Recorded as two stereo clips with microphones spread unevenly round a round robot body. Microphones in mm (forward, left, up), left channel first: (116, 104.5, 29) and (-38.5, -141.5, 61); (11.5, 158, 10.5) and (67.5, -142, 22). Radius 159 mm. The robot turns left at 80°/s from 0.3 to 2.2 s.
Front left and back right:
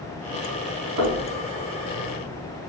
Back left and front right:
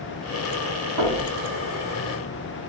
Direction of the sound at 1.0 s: 90° right.